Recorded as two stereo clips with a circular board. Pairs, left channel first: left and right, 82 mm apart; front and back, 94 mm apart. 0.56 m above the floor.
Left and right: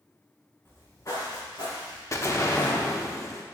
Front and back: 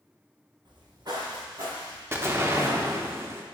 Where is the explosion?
125° left, 0.7 m.